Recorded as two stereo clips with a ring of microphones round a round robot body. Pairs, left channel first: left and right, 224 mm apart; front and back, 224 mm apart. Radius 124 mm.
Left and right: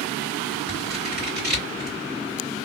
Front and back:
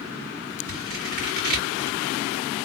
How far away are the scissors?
About 2 m.